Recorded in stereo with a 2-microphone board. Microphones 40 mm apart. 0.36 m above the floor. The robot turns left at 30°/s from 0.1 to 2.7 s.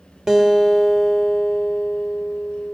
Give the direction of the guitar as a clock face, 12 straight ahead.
5 o'clock.